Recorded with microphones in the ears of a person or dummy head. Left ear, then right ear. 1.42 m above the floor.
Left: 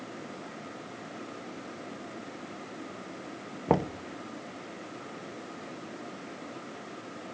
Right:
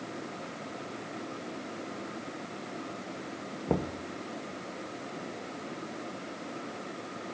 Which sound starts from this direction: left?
Knocking, at 3.7 s.